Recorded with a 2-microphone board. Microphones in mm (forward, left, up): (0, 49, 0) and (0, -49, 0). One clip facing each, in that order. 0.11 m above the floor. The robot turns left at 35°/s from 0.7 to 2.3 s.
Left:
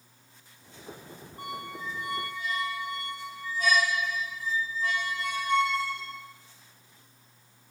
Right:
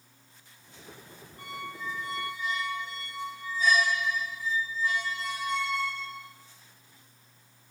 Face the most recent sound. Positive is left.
turn(degrees=90)